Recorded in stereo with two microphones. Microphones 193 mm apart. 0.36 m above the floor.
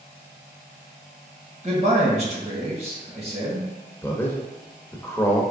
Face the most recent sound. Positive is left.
turn(degrees=10)  # may be behind; listen again after turning